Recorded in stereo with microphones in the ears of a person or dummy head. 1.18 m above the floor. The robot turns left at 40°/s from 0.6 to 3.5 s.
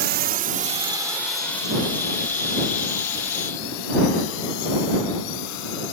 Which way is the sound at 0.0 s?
45° right (ahead or behind).